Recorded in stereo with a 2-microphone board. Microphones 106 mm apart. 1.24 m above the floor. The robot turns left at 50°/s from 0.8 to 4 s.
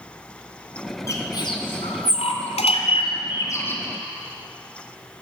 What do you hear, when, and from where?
1.1 s a bird: 30° left (ahead or behind), 3.5 m; by 3.8 s 15° left (ahead or behind), 3.5 m